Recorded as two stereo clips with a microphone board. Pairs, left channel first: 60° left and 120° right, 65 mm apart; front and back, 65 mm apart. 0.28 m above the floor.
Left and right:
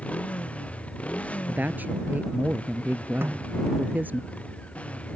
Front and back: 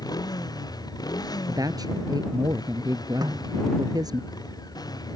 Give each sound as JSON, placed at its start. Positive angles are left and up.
{"t": 0.0, "sound": "a motorcycle", "azimuth_deg": -10}
{"t": 1.5, "sound": "a woman speaking", "azimuth_deg": 175}
{"t": 3.2, "sound": "a snare drum", "azimuth_deg": -175}